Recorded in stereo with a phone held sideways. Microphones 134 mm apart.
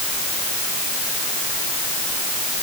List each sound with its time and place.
Only background noise.